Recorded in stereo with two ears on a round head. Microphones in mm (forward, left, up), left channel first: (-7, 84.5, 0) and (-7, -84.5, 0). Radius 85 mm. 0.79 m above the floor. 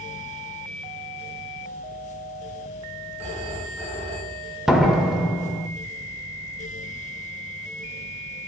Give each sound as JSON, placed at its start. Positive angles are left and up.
{"t": 3.2, "sound": "a phone ringing", "side_deg": -35, "distance_m": 5.0}
{"t": 4.7, "sound": "a door slam", "side_deg": 0, "distance_m": 1.7}